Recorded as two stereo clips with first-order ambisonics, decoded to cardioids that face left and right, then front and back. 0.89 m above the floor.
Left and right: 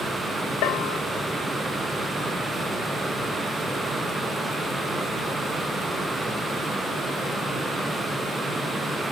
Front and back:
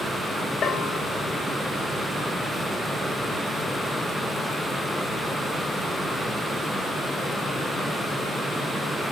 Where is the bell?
65° left, 1.6 m.